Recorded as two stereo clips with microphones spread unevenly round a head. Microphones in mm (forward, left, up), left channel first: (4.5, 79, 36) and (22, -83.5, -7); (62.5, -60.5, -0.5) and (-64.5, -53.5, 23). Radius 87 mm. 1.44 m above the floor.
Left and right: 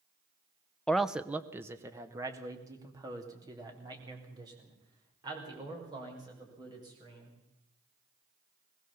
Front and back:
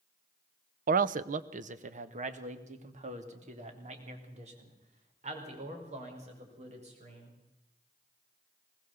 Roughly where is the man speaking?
Behind.